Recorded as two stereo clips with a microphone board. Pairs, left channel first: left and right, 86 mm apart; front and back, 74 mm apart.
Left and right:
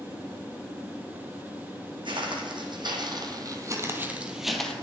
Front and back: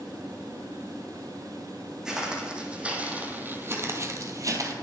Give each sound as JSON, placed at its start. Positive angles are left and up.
{"t": 2.0, "sound": "footsteps", "azimuth_deg": -100, "distance_m": 2.0}